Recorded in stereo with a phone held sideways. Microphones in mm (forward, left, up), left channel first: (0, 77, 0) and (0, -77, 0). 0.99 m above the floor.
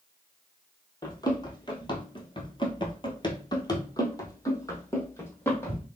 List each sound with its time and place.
1.0 s running footsteps: 25° left (ahead or behind), 1.4 m; by 5.9 s 15° left (ahead or behind), 2 m